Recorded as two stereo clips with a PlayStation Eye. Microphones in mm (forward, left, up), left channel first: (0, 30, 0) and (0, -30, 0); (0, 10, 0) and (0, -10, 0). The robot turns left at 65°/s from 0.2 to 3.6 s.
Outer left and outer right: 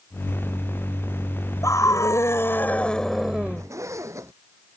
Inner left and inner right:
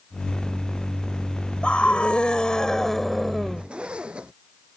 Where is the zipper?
60° right (ahead or behind).